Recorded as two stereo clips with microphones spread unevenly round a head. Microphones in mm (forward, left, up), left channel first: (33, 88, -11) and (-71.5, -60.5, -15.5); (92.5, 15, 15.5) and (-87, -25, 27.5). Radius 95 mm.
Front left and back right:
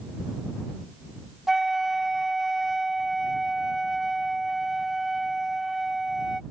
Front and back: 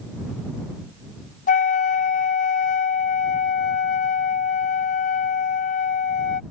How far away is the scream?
No scream in this recording.